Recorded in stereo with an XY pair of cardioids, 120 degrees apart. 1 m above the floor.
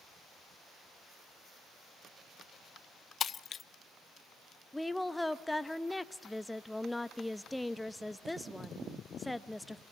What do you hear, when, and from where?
3.2 s breaking glass: 40° left, 0.5 m
4.7 s a woman speaking: 5° left, 0.7 m